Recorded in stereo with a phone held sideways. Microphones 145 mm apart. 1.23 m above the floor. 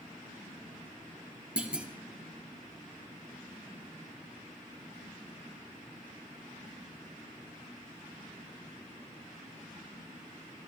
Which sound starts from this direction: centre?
A clunk, at 1.6 s.